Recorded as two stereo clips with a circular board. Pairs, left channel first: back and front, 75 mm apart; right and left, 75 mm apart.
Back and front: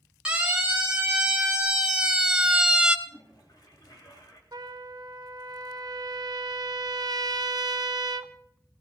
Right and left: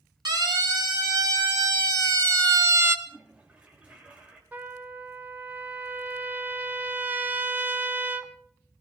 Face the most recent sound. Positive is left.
turn(degrees=25)